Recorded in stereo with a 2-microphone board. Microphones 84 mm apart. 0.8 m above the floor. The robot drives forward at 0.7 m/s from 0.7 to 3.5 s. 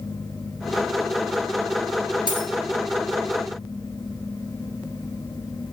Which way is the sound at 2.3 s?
75° left (ahead or behind).